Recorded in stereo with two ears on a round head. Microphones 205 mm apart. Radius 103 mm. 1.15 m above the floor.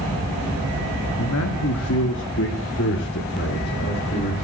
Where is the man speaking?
85° left, 1.9 m; by 4.3 s 45° left (ahead or behind), 4 m.